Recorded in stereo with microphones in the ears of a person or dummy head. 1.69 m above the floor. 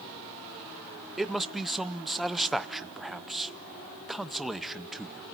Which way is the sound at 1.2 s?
5° left (ahead or behind).